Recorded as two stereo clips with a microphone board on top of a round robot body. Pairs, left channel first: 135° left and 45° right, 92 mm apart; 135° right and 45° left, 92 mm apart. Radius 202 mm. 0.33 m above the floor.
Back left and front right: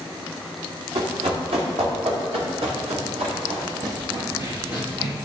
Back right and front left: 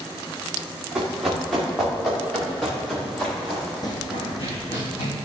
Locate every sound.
0.9 s running footsteps: 40° right, 3 m; by 3.7 s 50° right, 6 m
3.8 s running footsteps: 90° right, 1.5 m; by 5.2 s 120° right, 3 m